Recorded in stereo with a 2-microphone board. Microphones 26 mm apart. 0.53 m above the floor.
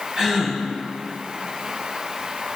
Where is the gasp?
30° right (ahead or behind), 1.9 m.